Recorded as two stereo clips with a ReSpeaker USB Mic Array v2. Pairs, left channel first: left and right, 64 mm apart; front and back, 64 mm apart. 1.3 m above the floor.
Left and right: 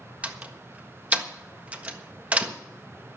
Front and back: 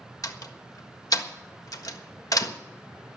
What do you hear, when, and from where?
0.2 s a door slam: 20° right, 1.4 m